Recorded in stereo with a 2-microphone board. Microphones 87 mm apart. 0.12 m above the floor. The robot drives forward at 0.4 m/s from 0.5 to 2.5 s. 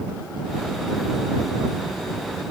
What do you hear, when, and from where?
Only background noise.